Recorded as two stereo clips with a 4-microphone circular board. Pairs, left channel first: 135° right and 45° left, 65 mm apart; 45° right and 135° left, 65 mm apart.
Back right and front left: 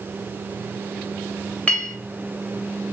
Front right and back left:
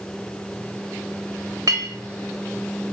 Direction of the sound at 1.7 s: 155° left.